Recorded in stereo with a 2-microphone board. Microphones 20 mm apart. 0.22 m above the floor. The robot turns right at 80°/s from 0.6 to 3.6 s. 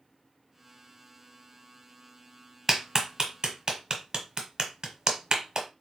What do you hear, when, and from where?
2.7 s a clap: 20° right (ahead or behind), 0.9 m; by 5.7 s 35° right (ahead or behind), 0.9 m